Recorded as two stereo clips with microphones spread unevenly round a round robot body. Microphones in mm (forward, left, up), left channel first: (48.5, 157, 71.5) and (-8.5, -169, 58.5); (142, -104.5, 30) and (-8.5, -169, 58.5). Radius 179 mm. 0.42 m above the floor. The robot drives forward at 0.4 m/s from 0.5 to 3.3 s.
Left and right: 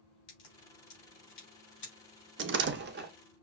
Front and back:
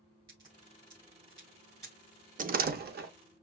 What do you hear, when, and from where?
0.3 s a crack: 130° left, 3 m; by 1.9 s 135° left, 3.5 m
2.4 s a door slam: 130° right, 0.5 m; by 3.1 s 155° right, 0.7 m